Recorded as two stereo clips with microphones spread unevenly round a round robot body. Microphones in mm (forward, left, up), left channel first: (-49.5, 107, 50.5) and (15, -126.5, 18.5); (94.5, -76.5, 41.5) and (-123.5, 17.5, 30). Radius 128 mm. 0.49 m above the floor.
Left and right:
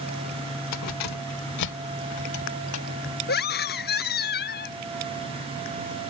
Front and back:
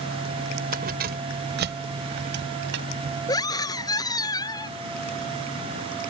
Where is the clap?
I don't hear a clap.